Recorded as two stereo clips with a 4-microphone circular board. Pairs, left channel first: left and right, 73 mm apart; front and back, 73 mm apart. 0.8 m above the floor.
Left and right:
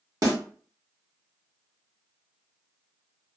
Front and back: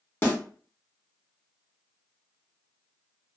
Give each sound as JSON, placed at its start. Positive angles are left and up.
{"t": 0.2, "sound": "a snare drum", "azimuth_deg": -55, "distance_m": 1.7}